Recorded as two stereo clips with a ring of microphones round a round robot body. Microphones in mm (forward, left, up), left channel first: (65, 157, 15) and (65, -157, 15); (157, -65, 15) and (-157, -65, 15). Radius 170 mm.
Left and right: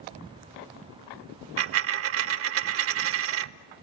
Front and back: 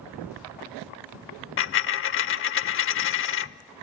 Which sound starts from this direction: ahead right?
A dropped coin, at 1.6 s.